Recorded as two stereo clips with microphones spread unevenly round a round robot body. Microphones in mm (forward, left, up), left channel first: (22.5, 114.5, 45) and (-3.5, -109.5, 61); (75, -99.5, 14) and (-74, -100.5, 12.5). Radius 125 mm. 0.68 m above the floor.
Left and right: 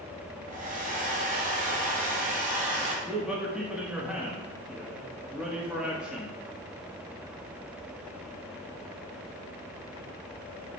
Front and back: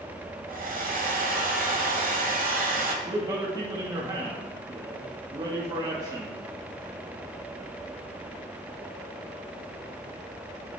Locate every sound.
0.5 s a hair dryer: 155° right, 1.1 m
3.0 s a man speaking: 175° left, 1.0 m